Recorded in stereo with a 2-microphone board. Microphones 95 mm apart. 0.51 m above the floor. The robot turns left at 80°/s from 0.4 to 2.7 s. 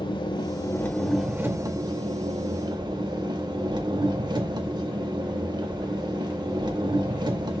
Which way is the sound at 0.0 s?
55° left.